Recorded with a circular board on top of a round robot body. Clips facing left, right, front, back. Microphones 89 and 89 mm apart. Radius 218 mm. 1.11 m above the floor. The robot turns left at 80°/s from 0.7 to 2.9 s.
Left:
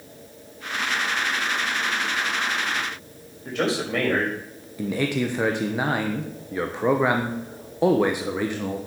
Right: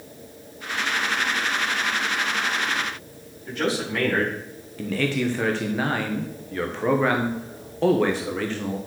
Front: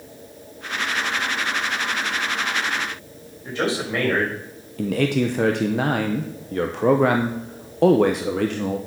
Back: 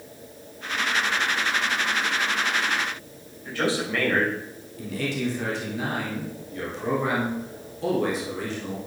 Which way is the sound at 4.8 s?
15° left.